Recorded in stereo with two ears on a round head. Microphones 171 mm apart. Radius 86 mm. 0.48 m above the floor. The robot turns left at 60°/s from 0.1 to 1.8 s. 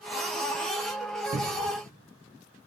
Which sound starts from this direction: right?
A cupboard door, at 1.3 s.